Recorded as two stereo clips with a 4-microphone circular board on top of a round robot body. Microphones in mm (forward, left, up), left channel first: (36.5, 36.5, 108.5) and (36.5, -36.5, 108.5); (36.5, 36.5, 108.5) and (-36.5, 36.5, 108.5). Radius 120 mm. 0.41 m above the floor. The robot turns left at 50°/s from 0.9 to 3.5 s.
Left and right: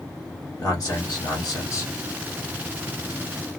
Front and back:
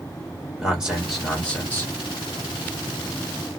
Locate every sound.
0.6 s a man speaking: 100° left, 1.5 m; by 1.9 s 50° left, 1.5 m